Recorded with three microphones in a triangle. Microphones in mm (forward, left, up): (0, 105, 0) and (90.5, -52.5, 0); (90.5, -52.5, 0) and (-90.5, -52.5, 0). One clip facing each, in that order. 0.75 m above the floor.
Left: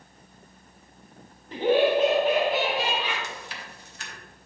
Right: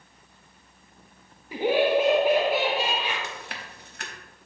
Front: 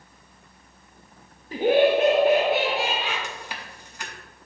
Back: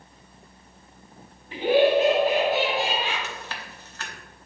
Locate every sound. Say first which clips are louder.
1.5 s laughter: left 1 dB, front 1 dB; 15° left, 0.6 m; by 3.1 s 20° left, 1.7 m
3.2 s chewing: right 1 dB, even; 75° right, 0.9 m